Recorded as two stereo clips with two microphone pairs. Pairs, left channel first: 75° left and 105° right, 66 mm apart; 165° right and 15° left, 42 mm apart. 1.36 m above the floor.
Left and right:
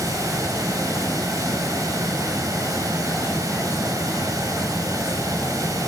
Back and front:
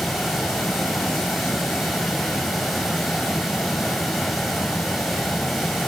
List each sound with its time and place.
0.0 s running water: 75° right, 5.5 m